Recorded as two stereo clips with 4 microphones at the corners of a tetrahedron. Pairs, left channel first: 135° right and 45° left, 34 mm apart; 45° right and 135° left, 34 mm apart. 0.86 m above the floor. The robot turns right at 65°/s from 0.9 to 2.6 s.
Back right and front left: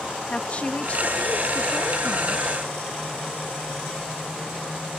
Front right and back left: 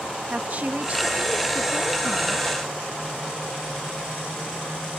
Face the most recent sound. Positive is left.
turn(degrees=-70)